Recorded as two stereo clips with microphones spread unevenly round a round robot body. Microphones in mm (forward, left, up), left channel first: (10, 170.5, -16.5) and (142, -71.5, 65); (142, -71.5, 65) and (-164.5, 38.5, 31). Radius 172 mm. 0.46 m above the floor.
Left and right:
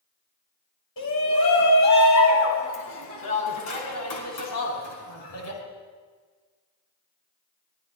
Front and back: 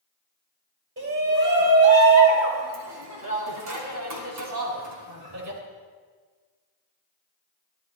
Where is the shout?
110° left, 4 m; by 5.6 s 125° left, 6 m.